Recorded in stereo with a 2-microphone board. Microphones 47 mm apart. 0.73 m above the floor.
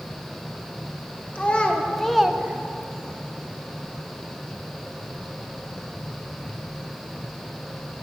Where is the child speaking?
30° left (ahead or behind), 1.4 m; by 3.2 s 55° right (ahead or behind), 1.0 m.